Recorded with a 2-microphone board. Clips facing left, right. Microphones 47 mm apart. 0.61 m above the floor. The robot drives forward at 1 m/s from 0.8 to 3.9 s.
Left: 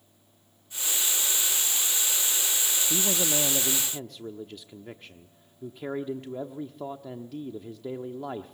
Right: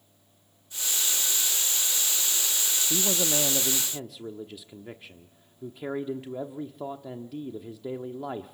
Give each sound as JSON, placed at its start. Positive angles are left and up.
{"t": 2.9, "sound": "a man speaking", "side_deg": -5, "distance_m": 0.7}